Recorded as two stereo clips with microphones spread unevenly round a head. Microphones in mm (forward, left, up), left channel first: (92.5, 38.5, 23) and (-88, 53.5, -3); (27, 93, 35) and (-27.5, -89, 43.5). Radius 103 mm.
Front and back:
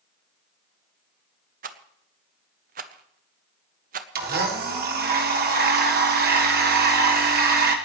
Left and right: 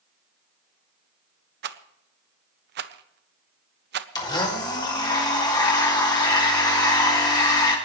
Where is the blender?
145° left, 2.5 m.